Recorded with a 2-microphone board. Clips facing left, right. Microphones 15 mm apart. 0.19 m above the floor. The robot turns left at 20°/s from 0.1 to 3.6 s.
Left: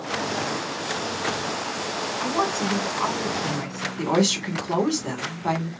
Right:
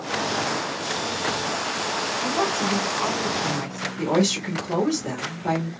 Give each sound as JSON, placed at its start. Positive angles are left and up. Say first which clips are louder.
{"t": 2.2, "sound": "a woman speaking", "louder": "left 1 dB", "side_deg": 35, "distance_m": 1.8}
{"t": 4.0, "sound": "a woman speaking", "louder": "even", "side_deg": 30, "distance_m": 1.2}